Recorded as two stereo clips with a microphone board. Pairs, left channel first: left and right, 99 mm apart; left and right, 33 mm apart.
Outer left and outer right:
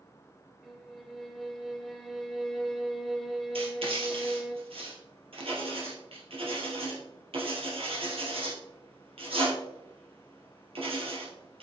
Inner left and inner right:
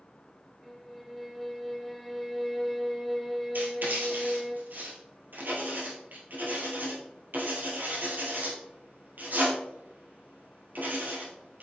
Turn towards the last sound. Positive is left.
turn(degrees=-70)  # may be behind; listen again after turning